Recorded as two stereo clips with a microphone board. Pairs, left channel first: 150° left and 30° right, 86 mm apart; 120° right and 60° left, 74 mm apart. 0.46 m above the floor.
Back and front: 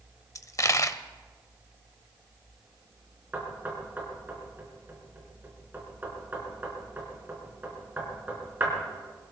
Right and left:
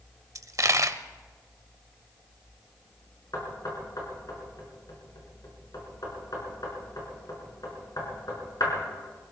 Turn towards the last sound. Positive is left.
turn(degrees=-95)